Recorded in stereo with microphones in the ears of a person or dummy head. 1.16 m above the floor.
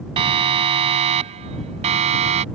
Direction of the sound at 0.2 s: 30° right (ahead or behind).